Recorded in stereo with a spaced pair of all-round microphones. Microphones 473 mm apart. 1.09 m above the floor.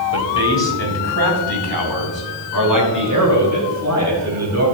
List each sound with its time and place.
0.1 s a man speaking: 75° right (ahead or behind), 3 m; by 4.6 s 35° right (ahead or behind), 7.5 m